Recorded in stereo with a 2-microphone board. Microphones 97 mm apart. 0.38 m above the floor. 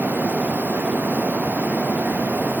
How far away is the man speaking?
I don't hear a man speaking.